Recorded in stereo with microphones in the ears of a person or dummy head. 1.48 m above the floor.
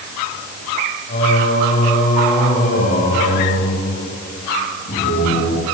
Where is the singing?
35° left (ahead or behind), 9.5 m.